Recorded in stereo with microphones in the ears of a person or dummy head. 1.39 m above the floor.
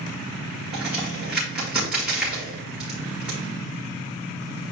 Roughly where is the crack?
Centre.